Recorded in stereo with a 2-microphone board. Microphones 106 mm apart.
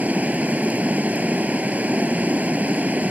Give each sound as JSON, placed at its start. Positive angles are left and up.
{"t": 0.0, "sound": "running water", "side_deg": -15}